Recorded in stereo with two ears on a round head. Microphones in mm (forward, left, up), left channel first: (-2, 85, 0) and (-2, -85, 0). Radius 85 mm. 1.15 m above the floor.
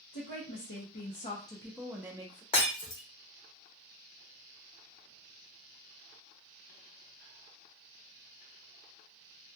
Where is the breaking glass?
30° left (ahead or behind), 1.0 m.